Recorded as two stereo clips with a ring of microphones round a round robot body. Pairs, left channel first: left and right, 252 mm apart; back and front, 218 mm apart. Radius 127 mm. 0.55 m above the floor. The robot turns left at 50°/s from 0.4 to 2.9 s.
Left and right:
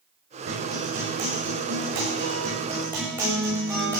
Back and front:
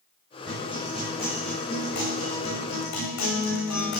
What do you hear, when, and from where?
0.5 s a guitar: 50° right, 9 m; by 4.0 s 175° right, 9 m